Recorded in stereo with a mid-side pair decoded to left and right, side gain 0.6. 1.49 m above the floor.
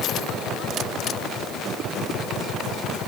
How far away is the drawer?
I don't hear a drawer.